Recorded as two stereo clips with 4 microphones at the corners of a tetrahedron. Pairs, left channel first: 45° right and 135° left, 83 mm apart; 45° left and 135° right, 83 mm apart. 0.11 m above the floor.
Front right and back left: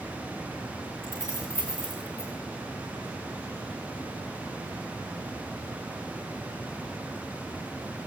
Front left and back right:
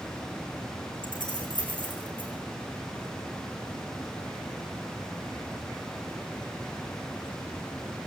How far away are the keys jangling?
About 7 m.